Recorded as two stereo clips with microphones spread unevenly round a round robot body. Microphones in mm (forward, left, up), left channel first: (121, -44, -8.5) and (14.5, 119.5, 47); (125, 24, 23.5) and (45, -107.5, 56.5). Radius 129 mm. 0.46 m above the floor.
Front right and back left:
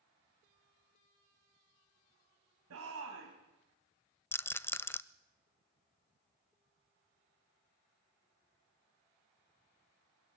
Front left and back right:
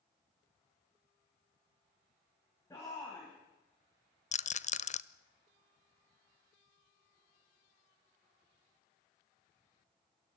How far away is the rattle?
About 0.9 m.